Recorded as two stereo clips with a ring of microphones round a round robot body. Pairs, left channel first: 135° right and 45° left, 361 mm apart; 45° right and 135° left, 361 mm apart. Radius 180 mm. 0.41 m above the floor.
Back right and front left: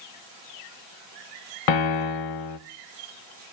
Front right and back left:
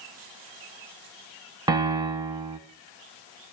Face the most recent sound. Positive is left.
turn(degrees=-145)